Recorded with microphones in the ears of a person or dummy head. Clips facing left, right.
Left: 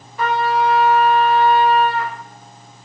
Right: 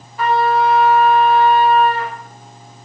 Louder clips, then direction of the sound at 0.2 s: Right 3 dB; 85° left.